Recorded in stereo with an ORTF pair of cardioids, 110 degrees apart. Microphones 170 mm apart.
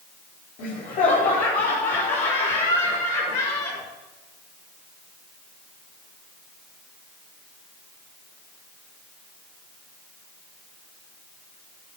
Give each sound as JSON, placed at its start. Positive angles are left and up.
{"t": 0.6, "sound": "laughter", "azimuth_deg": 60, "distance_m": 5.0}